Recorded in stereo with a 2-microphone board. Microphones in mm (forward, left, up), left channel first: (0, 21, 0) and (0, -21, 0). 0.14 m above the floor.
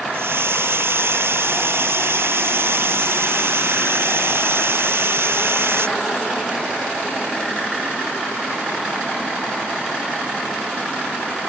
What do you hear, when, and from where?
0.1 s a hiss: 65° right (ahead or behind)